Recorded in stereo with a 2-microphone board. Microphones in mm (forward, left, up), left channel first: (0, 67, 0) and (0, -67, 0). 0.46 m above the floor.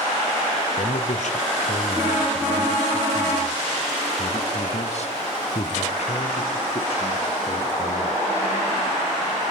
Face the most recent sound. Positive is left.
turn(degrees=50)  # may be behind; listen again after turning